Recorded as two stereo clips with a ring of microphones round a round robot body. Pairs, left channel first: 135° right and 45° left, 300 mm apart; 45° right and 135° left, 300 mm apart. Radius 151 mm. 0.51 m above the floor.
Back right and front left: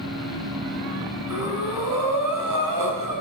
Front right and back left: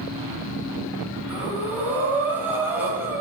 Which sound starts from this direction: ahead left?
Breathing, at 1.3 s.